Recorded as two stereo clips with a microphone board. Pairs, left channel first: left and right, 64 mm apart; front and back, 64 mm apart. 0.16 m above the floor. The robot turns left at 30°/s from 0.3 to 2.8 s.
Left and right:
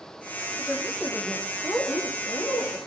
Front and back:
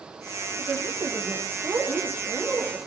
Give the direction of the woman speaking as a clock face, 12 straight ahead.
6 o'clock.